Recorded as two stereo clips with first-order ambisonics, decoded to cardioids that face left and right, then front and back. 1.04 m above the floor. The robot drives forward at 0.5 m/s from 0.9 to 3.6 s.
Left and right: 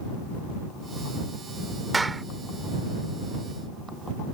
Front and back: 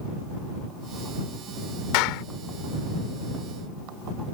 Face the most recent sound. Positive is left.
turn(degrees=-15)